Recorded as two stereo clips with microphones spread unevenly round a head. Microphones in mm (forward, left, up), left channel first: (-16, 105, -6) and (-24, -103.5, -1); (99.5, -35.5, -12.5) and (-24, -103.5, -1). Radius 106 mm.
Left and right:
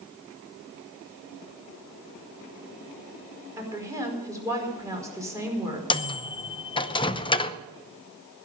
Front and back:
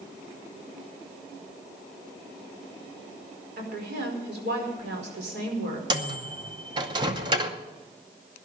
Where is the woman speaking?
170° right, 5 m.